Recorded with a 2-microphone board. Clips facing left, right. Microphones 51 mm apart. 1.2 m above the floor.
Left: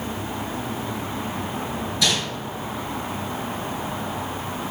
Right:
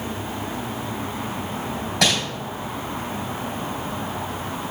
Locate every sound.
2.0 s crumpling: 80° right, 3 m